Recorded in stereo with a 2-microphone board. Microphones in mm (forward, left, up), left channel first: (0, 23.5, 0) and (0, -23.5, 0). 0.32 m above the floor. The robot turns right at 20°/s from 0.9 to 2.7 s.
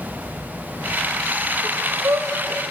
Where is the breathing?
75° right (ahead or behind), 3 m; by 2.6 s 85° right, 3 m.